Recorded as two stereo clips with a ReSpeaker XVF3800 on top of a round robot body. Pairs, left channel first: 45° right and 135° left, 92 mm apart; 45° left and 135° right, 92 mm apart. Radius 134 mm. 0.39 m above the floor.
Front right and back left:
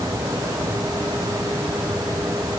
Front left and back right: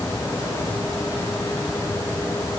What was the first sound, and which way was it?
Only background noise.